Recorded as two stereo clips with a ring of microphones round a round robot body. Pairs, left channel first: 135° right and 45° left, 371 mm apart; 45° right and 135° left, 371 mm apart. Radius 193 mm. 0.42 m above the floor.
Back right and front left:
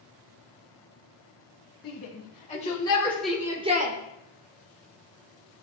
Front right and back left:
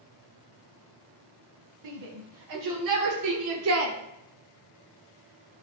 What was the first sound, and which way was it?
A shout, 165° left.